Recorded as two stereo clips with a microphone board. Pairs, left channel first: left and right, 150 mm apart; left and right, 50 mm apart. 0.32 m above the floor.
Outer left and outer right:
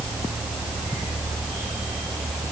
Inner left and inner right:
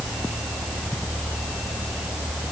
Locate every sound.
Only background noise.